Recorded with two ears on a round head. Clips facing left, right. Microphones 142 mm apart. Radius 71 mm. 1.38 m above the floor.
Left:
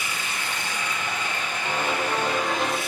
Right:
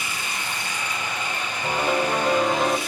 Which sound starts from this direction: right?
A piano, at 1.6 s.